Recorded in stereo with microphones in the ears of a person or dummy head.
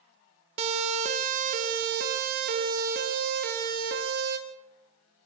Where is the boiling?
I don't hear boiling.